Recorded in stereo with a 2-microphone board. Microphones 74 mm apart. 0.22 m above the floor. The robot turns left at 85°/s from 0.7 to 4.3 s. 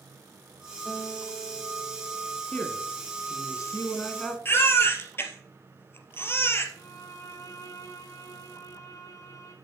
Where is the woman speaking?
160° left, 2.5 m; by 4.3 s 5° left, 2.5 m.